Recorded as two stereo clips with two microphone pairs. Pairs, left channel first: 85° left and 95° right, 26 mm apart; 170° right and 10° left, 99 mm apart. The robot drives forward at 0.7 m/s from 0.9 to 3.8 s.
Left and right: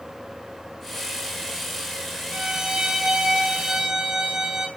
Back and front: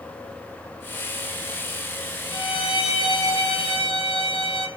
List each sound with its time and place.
2.3 s a violin: 150° right, 2.5 m; by 4.7 s 160° right, 3.5 m